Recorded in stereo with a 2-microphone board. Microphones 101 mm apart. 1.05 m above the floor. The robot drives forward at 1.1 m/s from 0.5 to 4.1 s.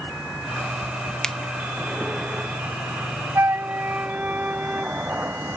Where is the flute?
25° right (ahead or behind); by 5.0 s 15° right (ahead or behind).